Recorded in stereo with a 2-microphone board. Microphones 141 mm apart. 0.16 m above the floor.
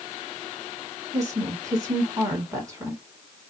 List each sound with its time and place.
1.1 s a woman speaking: 20° right (ahead or behind), 1.6 m